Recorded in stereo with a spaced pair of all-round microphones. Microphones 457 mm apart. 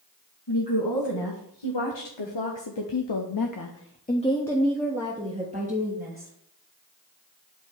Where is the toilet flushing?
No toilet flushing in this recording.